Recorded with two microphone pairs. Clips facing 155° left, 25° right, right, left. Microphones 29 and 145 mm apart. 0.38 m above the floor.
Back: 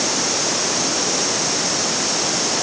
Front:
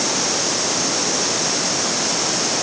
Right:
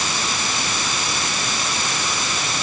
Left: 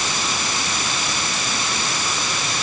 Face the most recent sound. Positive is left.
No sound to turn to.